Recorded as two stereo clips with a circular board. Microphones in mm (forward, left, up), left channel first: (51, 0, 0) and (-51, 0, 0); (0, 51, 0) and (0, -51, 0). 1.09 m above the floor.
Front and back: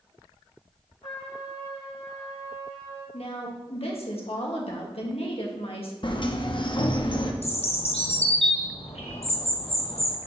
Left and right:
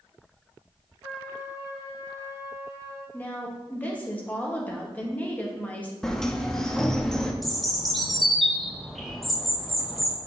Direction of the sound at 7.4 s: Straight ahead.